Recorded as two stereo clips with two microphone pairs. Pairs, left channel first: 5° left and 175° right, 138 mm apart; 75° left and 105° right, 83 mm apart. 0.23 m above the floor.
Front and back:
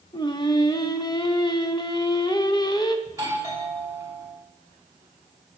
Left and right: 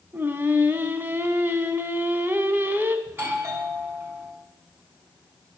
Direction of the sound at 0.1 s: 40° right.